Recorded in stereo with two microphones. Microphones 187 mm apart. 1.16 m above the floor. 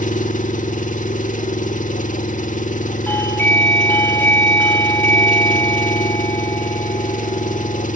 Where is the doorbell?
10° left (ahead or behind), 4.5 m.